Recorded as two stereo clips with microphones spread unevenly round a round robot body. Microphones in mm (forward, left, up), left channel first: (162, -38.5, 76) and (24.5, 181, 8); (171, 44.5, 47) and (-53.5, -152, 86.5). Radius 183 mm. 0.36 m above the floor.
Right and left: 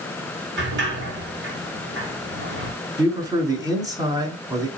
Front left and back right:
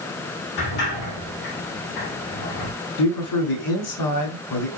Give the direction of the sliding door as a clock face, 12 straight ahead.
9 o'clock.